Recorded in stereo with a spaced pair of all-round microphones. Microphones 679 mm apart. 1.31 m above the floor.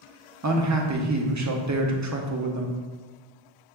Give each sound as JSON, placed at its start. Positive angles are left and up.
{"t": 0.4, "sound": "a man speaking", "side_deg": -30, "distance_m": 0.5}